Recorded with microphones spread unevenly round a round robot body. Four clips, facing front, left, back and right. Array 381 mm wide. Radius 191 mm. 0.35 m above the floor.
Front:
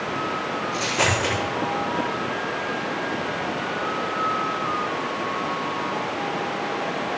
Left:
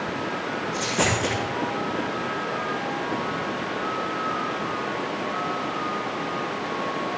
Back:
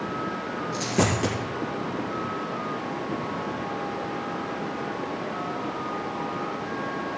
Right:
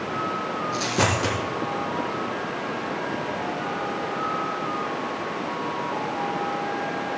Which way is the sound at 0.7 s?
160° right.